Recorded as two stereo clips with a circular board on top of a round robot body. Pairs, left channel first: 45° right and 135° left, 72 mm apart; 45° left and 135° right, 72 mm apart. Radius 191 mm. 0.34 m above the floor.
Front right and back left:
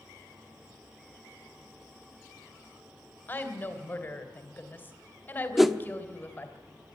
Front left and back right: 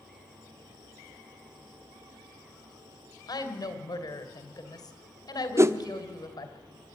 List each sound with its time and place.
3.3 s a woman speaking: 20° left, 3 m
5.6 s a whoosh: 140° right, 1.3 m